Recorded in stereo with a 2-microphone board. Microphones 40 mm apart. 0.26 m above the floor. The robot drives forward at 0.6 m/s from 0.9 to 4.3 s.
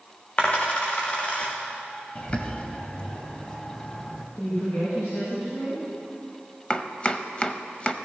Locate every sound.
0.4 s a dropped coin: 35° left (ahead or behind), 2.5 m; by 1.5 s 30° left (ahead or behind), 3 m
2.1 s a bird: 35° left (ahead or behind), 1.0 m; by 4.2 s 20° left (ahead or behind), 1.7 m
4.3 s a woman speaking: 75° left (ahead or behind), 5 m
6.7 s chopping: 30° left (ahead or behind), 0.6 m